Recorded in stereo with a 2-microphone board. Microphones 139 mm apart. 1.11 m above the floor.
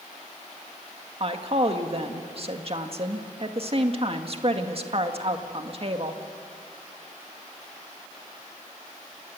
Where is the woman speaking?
45° right (ahead or behind), 1.8 m.